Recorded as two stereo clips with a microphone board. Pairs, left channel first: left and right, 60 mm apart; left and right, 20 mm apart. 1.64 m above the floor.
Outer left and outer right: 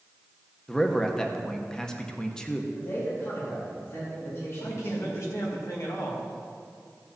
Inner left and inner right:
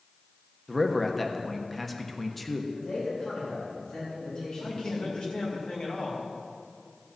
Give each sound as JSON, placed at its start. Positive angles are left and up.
{"t": 0.7, "sound": "a man speaking", "side_deg": 10, "distance_m": 1.0}
{"t": 2.8, "sound": "a man speaking", "side_deg": 45, "distance_m": 3.5}
{"t": 4.6, "sound": "a man speaking", "side_deg": 55, "distance_m": 2.5}